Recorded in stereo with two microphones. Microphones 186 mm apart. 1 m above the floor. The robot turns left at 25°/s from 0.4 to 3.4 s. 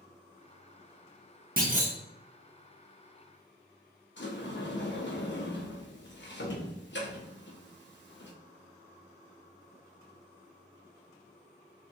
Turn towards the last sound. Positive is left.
turn(degrees=70)  # may be behind; listen again after turning